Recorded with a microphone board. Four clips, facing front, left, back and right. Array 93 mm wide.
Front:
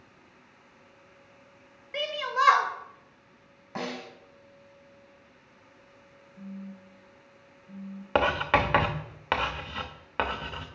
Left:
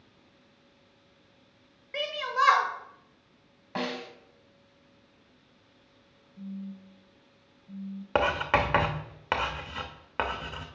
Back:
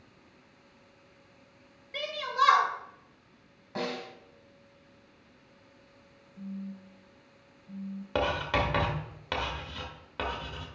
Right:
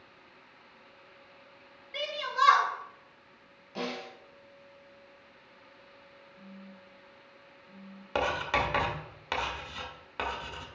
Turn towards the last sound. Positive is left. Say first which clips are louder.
# left 4 dB, front 5 dB
turn(degrees=35)